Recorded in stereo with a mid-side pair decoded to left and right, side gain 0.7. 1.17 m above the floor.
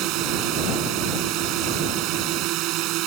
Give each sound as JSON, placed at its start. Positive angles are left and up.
{"t": 0.0, "sound": "a drone", "azimuth_deg": -60}